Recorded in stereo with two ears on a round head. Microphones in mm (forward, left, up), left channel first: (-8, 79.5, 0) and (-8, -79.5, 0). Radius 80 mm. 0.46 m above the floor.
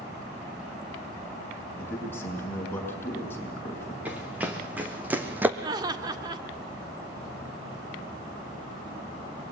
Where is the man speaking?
15° left (ahead or behind), 6.5 m.